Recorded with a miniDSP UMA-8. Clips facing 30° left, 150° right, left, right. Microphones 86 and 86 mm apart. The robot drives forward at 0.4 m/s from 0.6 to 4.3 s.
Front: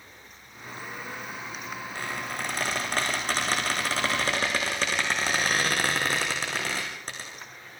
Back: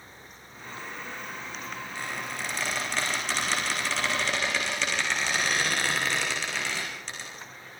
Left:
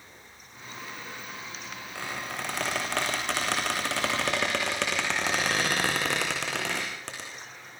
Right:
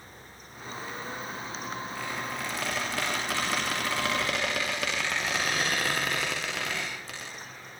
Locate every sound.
1.9 s a squeak: 70° left, 7 m; by 7.3 s 75° left, 7 m